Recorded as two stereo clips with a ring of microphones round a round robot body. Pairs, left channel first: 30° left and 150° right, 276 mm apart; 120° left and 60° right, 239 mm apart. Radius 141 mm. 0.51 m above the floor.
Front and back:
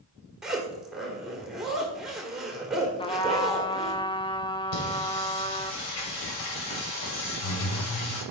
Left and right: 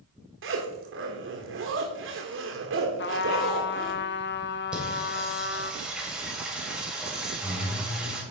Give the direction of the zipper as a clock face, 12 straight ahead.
2 o'clock.